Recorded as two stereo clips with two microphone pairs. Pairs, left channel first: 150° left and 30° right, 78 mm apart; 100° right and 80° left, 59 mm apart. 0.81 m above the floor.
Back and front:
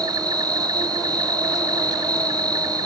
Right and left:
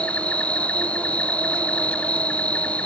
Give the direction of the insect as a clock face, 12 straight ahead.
1 o'clock.